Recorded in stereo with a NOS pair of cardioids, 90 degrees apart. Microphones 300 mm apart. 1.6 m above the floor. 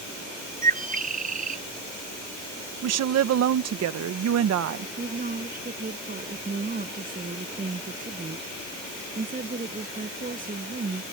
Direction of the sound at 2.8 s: 60° right.